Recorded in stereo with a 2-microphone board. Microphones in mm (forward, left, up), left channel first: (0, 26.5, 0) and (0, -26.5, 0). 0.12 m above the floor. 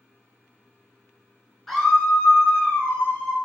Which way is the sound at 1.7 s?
Centre (ahead or behind).